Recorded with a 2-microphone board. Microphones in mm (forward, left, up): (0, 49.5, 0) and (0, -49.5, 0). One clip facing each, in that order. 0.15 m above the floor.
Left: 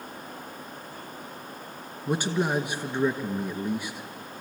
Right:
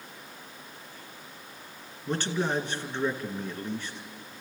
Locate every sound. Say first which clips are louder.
2.1 s a man speaking: left 3 dB; 10° left (ahead or behind), 1.4 m